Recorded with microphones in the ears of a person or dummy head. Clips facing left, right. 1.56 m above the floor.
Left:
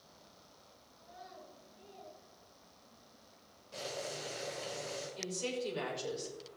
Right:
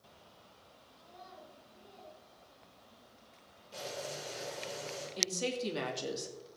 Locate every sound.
1.0 s a child speaking: 5° left (ahead or behind), 5.5 m
3.7 s boiling: 10° right (ahead or behind), 7 m
5.2 s a woman speaking: 70° right (ahead or behind), 3 m